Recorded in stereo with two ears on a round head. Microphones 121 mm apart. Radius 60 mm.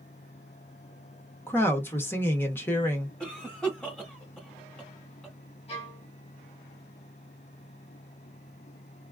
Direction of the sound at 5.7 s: 50° left (ahead or behind).